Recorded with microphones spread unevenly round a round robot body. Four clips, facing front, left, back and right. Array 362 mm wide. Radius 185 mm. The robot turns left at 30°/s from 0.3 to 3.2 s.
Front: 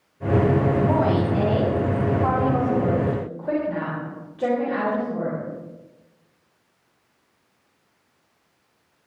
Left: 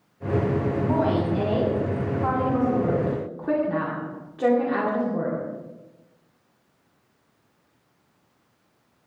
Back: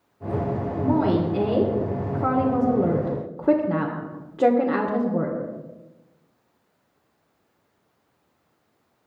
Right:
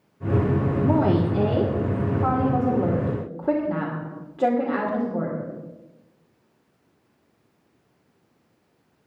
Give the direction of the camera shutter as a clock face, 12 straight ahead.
I don't hear a camera shutter.